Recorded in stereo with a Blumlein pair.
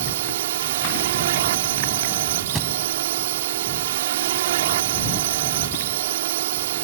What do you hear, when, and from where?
0.0 s a drone: 60° right
2.5 s a thud: 5° right